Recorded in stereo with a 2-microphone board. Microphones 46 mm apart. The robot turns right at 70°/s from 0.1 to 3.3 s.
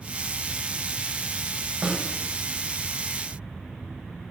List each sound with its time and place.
1.8 s a snare drum: 15° right (ahead or behind), 3 m; by 2.1 s centre (ahead or behind), 3 m